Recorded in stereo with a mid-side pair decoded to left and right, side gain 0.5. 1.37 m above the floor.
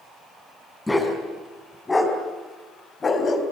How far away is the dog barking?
About 5.5 m.